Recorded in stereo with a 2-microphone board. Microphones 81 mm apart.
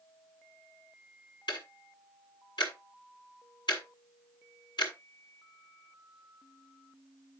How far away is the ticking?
About 2 m.